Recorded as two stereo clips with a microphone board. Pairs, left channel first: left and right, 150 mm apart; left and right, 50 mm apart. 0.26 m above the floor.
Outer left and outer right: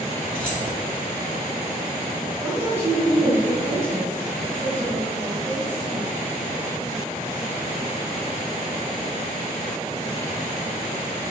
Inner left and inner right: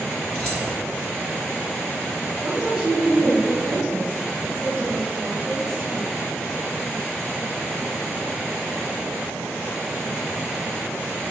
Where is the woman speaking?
15° right (ahead or behind), 1.7 m.